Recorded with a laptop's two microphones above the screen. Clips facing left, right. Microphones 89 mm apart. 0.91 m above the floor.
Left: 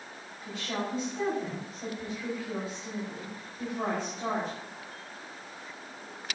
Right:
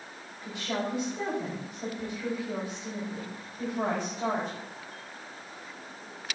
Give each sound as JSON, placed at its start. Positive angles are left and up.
{"t": 0.5, "sound": "a woman speaking", "side_deg": -15, "distance_m": 5.0}